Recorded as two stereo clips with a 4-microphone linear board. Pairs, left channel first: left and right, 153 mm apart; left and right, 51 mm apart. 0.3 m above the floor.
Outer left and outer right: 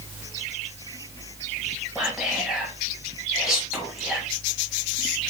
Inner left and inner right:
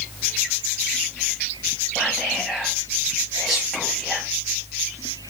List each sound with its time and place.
1.9 s whispering: 5° right (ahead or behind), 1.8 m